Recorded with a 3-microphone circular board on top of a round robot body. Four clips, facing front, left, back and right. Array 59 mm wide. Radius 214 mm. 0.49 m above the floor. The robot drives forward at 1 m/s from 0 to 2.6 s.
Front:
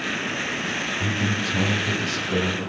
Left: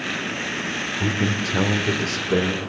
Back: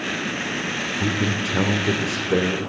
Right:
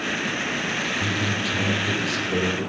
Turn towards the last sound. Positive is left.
turn(degrees=145)